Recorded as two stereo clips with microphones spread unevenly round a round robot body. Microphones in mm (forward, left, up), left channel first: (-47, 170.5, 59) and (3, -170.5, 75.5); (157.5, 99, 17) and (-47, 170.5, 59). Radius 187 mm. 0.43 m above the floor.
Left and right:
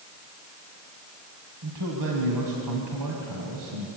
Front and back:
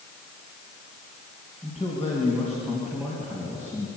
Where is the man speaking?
110° right, 3.5 m.